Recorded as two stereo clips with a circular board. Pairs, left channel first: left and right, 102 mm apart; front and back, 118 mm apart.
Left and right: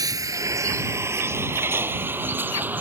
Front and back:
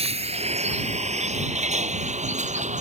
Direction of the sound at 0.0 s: 145° right.